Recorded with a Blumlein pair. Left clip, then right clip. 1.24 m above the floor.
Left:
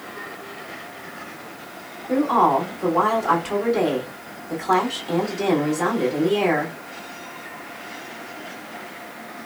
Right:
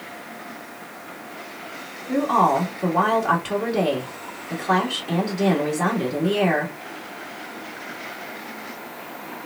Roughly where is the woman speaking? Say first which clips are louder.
Left 1 dB; ahead.